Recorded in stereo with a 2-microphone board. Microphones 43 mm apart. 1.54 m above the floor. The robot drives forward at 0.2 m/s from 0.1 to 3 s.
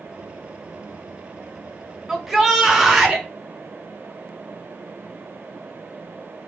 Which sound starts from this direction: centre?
A shout, at 2.1 s.